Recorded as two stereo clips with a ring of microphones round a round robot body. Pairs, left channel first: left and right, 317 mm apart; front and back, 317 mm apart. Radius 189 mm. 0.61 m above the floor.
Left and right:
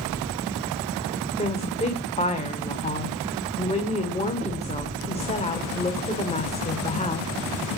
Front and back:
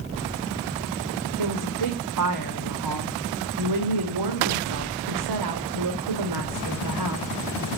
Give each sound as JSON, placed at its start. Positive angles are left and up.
{"t": 1.4, "sound": "a woman speaking", "azimuth_deg": 160, "distance_m": 2.0}